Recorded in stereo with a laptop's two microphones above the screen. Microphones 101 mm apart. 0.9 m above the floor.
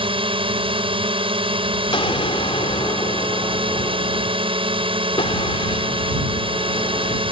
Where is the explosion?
65° left (ahead or behind).